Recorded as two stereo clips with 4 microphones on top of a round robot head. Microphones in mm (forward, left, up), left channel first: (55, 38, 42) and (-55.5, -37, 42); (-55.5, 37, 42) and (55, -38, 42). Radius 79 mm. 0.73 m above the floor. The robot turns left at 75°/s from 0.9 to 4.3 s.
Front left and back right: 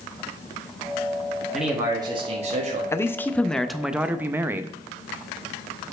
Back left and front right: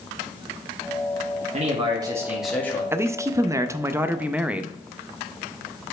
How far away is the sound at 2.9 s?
About 0.5 m.